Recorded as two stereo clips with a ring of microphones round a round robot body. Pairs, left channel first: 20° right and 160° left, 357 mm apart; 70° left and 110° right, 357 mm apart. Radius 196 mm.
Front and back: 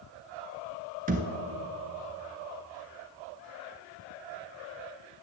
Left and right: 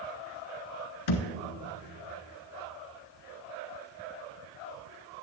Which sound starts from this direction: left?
A thud, at 1.1 s.